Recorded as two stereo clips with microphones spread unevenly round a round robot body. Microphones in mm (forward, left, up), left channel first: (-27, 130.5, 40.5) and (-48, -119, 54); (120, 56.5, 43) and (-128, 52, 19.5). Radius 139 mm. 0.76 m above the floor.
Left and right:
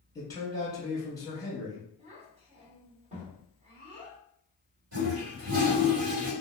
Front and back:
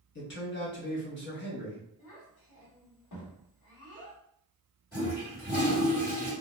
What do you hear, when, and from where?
0.1 s a man speaking: 20° left, 1.1 m
2.0 s a child speaking: 30° right, 1.2 m
4.9 s a toilet flushing: 75° right, 1.7 m